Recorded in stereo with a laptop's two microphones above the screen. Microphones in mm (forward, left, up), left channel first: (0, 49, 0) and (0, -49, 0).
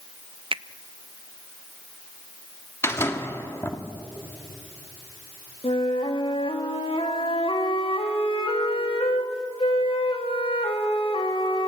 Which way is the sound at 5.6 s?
70° left (ahead or behind).